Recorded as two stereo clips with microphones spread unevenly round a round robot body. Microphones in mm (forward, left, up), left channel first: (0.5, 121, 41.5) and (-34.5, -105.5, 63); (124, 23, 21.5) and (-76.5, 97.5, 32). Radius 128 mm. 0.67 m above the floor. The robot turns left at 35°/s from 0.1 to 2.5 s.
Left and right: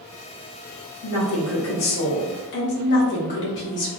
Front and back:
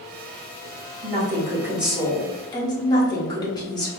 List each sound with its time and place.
1.0 s a woman speaking: 100° left, 1.9 m; by 3.9 s 50° left, 1.9 m